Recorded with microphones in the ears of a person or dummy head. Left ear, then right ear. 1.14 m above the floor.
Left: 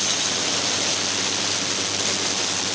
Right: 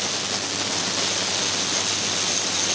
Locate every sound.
Only background noise.